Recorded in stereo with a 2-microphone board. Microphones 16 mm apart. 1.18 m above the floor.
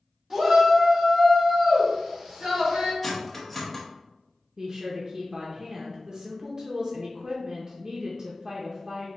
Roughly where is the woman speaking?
Right.